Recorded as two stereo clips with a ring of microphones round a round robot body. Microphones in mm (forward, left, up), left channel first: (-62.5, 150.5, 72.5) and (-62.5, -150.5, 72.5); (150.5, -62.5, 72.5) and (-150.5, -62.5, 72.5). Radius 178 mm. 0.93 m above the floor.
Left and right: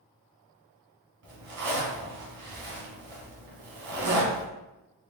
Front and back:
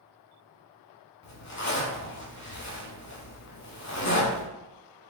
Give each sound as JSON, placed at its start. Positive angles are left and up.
{"t": 1.2, "sound": "a zipper", "azimuth_deg": -50, "distance_m": 1.7}